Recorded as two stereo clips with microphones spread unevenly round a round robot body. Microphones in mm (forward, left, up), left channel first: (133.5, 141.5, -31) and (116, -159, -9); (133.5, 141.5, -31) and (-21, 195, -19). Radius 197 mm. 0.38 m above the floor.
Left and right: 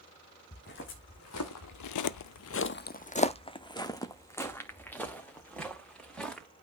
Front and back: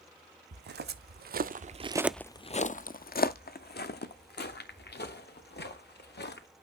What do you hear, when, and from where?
0.5 s footsteps: 155° left, 1.2 m; by 6.5 s straight ahead, 3.5 m